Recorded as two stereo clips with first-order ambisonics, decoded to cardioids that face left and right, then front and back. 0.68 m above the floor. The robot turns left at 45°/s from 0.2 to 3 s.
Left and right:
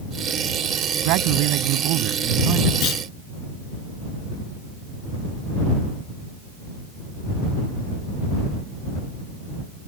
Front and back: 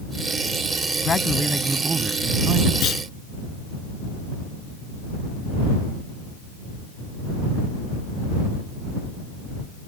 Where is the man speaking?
70° right; by 2.7 s 145° right.